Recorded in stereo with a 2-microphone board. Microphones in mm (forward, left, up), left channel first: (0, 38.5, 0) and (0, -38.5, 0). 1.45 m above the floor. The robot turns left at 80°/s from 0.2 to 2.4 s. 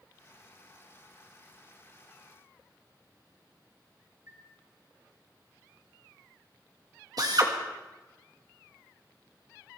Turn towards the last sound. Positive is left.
turn(degrees=-55)  # may be behind; listen again after turning